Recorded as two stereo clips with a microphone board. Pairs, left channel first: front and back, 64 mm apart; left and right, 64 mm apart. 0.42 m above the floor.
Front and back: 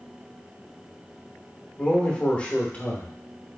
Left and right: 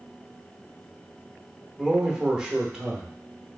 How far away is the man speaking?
About 0.9 m.